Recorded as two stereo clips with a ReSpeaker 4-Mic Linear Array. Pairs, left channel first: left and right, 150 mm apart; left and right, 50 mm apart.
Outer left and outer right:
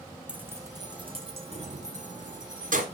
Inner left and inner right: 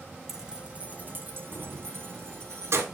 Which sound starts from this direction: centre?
Keys jangling, at 0.3 s.